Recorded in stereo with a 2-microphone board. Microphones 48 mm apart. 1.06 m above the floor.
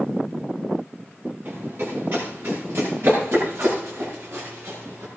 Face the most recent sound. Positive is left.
turn(degrees=-70)  # may be behind; listen again after turning